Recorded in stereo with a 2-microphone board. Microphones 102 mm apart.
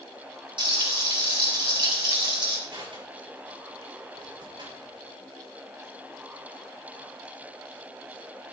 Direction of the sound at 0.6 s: 55° right (ahead or behind).